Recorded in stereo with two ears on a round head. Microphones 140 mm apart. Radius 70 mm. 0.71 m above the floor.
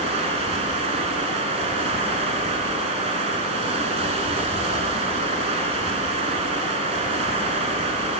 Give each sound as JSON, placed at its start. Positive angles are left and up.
{"t": 0.0, "sound": "running water", "side_deg": -40, "distance_m": 1.2}